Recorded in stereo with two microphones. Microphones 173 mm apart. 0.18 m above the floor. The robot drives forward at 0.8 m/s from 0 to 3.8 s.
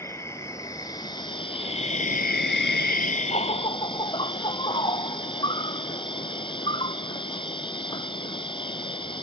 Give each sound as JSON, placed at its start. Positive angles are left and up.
{"t": 0.0, "sound": "an insect", "side_deg": 15}